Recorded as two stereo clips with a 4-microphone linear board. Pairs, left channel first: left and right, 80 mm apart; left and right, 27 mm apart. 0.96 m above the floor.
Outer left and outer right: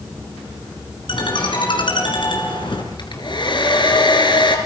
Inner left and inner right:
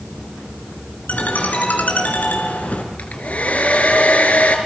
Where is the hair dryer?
70° left (ahead or behind), 3.5 m.